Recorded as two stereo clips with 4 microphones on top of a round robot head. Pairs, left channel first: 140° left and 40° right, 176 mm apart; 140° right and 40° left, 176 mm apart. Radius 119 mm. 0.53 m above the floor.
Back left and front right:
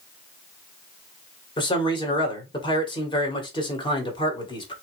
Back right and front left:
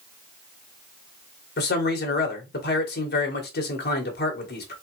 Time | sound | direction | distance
1.6 | a man speaking | 160° right | 2.0 m